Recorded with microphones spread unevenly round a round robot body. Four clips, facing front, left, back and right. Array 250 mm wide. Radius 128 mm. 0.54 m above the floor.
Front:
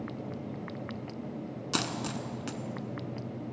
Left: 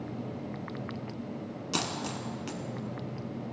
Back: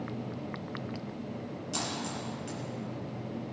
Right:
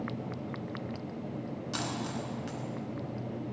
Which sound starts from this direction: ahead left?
A dropped coin, at 1.7 s.